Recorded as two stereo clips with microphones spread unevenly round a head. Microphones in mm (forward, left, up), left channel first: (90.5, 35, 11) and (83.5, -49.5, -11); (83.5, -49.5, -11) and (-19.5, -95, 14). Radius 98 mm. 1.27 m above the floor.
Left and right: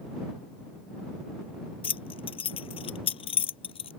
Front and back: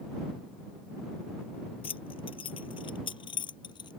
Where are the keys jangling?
90° left; by 3.9 s 95° left.